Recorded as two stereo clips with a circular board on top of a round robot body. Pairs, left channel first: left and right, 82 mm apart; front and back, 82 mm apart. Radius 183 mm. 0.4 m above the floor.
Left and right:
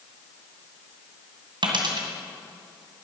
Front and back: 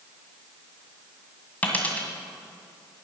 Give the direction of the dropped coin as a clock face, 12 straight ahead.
2 o'clock.